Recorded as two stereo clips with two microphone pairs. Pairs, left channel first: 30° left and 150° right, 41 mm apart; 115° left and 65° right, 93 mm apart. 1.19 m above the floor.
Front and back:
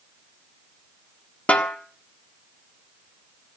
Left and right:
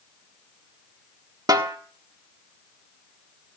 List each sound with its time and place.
1.5 s a snare drum: 20° right, 1.4 m